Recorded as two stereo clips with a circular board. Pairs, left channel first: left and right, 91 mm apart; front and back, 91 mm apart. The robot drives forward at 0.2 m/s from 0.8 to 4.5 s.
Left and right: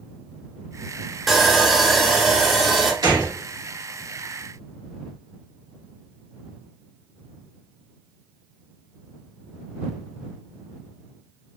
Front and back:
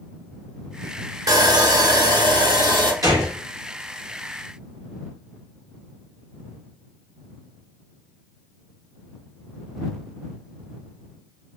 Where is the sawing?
Straight behind, 0.6 m.